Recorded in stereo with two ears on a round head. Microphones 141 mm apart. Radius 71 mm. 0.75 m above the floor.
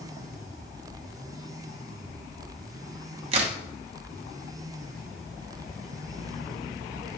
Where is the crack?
40° right (ahead or behind), 0.7 m.